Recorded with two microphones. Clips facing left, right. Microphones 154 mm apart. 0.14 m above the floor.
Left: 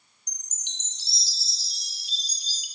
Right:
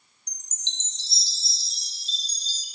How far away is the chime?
About 1.8 m.